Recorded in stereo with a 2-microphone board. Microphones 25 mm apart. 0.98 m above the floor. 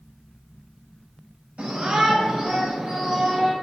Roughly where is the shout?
Right.